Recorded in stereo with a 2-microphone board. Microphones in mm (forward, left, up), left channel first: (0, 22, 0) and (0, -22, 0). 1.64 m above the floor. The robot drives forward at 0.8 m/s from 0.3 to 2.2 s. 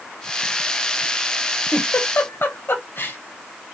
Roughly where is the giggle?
Left.